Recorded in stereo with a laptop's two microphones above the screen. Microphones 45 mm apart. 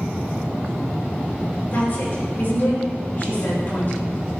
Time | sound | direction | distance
1.7 | a woman speaking | 50° left (ahead or behind) | 4.5 m